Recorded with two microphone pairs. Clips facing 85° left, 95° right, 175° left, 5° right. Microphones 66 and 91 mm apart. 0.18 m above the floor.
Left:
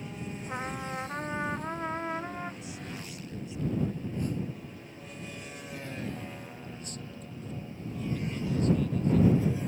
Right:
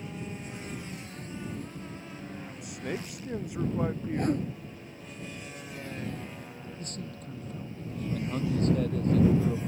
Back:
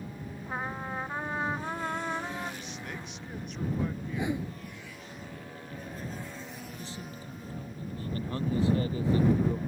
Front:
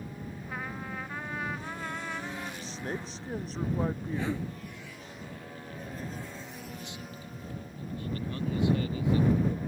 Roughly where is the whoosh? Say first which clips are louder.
Right 5 dB, even; behind right.